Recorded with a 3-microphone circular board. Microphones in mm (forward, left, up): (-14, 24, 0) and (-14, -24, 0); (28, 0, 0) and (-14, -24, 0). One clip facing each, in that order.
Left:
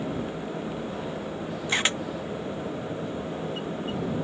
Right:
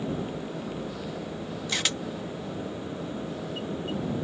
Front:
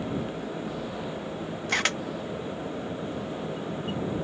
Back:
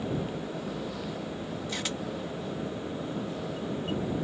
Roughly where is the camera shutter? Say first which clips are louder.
Left 5 dB, front 11 dB; ahead left.